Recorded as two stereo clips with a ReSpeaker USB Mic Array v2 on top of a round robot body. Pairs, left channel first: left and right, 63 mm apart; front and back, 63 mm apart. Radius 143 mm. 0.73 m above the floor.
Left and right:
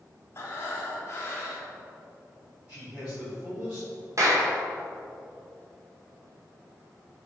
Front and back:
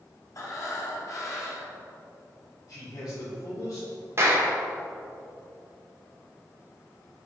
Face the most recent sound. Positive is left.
turn(degrees=-130)